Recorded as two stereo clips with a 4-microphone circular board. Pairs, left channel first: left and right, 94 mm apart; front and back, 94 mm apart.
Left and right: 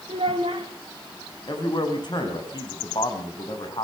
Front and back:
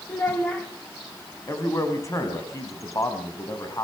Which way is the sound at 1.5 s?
50° left.